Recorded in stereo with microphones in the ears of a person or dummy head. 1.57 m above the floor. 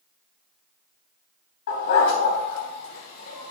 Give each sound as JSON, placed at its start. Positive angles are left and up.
{"t": 1.7, "sound": "a dog barking", "side_deg": 60, "distance_m": 3.5}